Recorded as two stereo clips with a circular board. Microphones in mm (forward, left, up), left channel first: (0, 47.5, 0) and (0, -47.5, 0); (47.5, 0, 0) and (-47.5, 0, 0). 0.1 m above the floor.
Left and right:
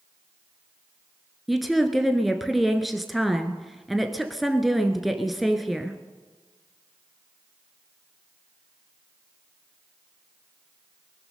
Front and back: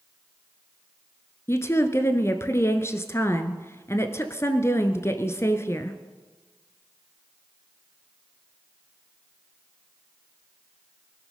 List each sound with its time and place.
1.5 s a woman speaking: straight ahead, 1.2 m